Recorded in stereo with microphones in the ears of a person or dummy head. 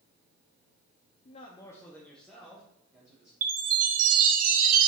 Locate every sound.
1.2 s a man speaking: 45° left (ahead or behind), 0.7 m; by 3.3 s 5° right (ahead or behind), 2.5 m
3.4 s a chime: 50° right (ahead or behind), 1.2 m